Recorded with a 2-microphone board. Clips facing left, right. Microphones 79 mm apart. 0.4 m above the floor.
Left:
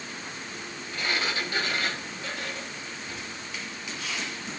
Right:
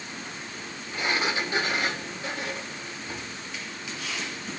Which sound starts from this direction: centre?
A sliding door, at 0.9 s.